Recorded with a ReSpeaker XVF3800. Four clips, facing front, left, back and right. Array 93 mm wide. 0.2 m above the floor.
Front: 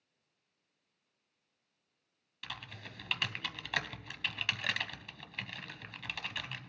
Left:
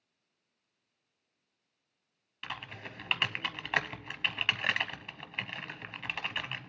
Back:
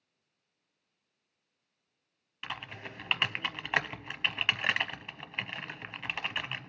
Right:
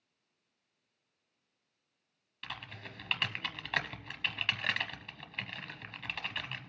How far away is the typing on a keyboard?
About 0.6 m.